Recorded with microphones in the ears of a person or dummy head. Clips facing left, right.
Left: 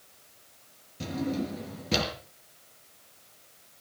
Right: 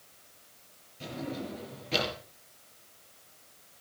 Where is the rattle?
No rattle in this recording.